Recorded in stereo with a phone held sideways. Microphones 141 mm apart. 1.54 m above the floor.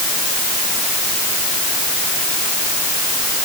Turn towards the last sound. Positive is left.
No sound to turn to.